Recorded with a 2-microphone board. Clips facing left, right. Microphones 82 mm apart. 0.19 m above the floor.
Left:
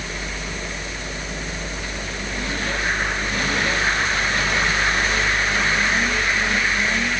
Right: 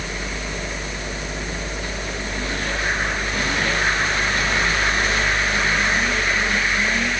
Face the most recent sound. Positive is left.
No sound to turn to.